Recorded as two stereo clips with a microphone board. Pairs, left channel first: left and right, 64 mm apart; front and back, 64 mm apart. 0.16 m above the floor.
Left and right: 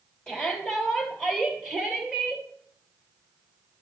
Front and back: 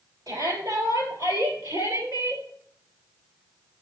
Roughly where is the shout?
Behind.